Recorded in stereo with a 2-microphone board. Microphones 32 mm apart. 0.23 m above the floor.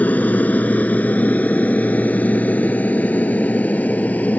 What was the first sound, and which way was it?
An aircraft, 60° left (ahead or behind).